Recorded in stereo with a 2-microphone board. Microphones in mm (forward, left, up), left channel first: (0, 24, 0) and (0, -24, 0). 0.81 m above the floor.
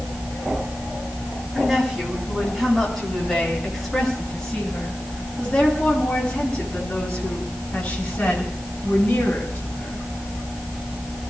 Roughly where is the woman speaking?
Centre.